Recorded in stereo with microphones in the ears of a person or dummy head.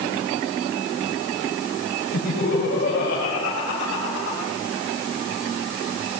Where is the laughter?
70° left (ahead or behind), 6 m; by 4.5 s 60° left (ahead or behind), 5 m.